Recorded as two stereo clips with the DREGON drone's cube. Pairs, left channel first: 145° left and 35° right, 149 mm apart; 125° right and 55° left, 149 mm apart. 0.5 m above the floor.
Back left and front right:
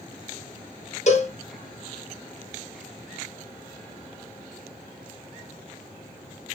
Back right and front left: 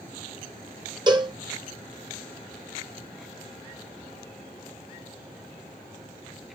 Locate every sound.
1.1 s a cowbell: 115° left, 0.8 m